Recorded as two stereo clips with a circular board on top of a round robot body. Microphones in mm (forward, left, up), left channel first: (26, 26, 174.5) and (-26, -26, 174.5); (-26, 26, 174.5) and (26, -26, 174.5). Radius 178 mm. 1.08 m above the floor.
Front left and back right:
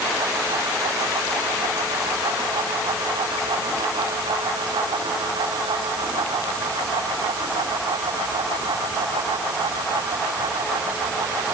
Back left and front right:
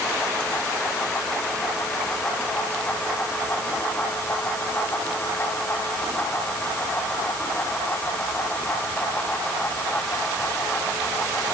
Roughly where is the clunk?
I don't hear a clunk.